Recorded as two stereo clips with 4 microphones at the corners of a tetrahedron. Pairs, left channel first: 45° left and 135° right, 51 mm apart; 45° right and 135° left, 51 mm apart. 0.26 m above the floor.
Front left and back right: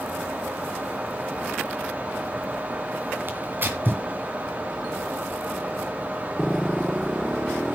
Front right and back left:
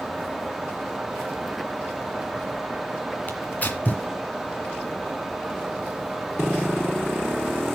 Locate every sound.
3.3 s tearing paper: 95° right, 2 m